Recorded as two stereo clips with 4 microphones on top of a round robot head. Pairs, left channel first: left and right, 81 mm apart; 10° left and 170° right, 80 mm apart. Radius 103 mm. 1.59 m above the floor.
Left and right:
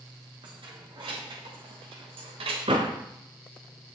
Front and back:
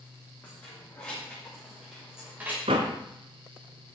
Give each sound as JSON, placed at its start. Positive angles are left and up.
{"t": 0.4, "sound": "keys jangling", "azimuth_deg": -65, "distance_m": 2.5}
{"t": 2.7, "sound": "a door slam", "azimuth_deg": -135, "distance_m": 0.5}